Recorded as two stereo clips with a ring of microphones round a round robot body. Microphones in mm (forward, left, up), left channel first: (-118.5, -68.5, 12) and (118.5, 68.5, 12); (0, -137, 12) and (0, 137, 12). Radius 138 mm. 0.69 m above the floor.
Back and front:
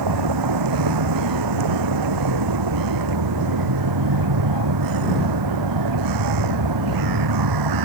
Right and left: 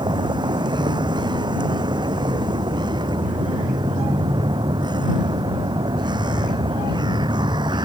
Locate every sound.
0.0 s a vehicle: 15° left